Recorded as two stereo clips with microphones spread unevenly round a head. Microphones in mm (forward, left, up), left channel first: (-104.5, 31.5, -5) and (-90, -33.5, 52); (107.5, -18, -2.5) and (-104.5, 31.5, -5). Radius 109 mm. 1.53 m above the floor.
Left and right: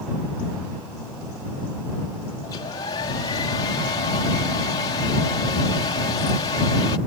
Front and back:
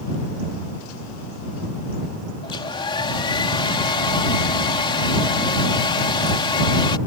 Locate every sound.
2.4 s a hair dryer: 55° left